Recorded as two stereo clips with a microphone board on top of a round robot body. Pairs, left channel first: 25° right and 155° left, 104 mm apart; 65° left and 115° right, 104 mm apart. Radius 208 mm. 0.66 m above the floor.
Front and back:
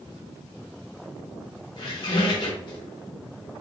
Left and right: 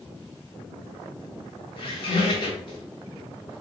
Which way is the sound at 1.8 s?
25° left.